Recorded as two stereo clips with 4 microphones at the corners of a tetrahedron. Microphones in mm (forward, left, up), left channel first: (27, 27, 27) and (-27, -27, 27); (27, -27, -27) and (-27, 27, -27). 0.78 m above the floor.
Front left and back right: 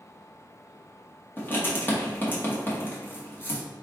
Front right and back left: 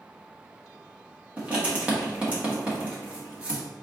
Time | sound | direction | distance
1.4 | writing | 80° left | 1.1 m